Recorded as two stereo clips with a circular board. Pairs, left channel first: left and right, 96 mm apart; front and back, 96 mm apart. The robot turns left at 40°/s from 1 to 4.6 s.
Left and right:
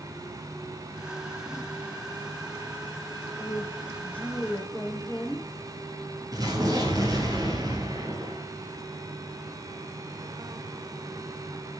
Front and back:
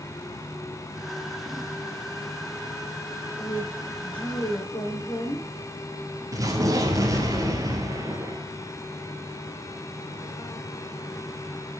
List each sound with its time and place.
3.4 s a woman speaking: 45° left, 3.5 m; by 5.5 s 5° right, 3.5 m
6.3 s an explosion: 135° right, 1.6 m